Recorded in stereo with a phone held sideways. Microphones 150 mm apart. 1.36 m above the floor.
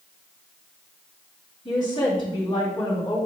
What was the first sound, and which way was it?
A woman speaking, 40° left (ahead or behind).